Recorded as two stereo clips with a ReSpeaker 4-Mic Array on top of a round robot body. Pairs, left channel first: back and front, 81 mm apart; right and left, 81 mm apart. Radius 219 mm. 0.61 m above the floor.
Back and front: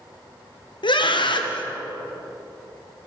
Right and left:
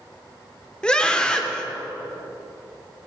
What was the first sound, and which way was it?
A scream, 170° right.